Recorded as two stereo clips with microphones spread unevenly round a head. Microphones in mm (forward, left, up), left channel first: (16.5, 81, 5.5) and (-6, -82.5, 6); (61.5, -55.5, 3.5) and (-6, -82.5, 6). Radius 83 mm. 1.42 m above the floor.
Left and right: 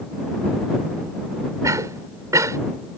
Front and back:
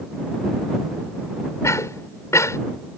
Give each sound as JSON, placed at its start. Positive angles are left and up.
{"t": 1.6, "sound": "a cough", "azimuth_deg": -25}